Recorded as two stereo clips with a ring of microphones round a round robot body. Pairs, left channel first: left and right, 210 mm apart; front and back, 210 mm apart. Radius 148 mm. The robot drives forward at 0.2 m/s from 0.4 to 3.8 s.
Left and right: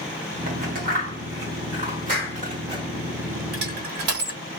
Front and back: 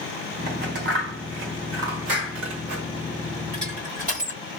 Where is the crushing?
115° right, 1.2 m.